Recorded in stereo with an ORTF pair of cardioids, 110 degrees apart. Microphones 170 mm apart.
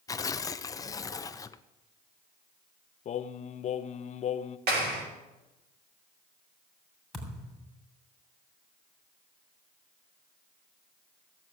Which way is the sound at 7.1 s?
Straight ahead.